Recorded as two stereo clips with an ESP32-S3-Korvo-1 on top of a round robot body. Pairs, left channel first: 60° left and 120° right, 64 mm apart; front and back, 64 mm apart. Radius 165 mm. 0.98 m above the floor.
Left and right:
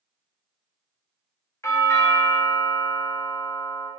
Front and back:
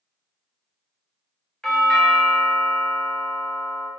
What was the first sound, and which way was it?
A doorbell, 80° left.